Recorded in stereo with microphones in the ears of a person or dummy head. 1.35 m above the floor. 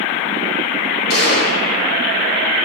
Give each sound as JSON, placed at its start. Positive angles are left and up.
{"t": 1.1, "sound": "a gunshot", "side_deg": 50, "distance_m": 3.0}